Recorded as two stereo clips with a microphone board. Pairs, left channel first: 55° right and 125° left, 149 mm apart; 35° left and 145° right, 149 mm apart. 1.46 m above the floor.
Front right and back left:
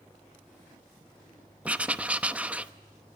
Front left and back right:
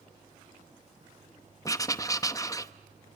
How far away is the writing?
About 0.8 m.